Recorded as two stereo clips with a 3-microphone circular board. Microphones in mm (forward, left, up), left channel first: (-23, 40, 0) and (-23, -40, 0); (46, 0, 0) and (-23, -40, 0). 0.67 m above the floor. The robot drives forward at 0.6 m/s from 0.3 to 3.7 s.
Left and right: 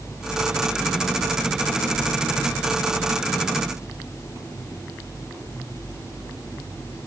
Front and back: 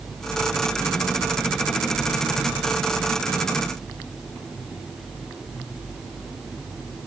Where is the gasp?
I don't hear a gasp.